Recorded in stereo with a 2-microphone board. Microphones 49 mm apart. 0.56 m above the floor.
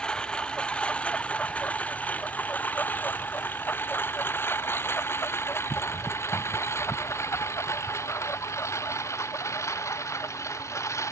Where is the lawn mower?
15° left (ahead or behind); by 11.1 s 75° left (ahead or behind).